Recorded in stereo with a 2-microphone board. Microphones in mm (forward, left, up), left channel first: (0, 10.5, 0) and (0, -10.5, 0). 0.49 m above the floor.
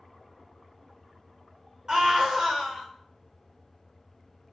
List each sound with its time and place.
1.9 s a scream: 40° right (ahead or behind), 1.2 m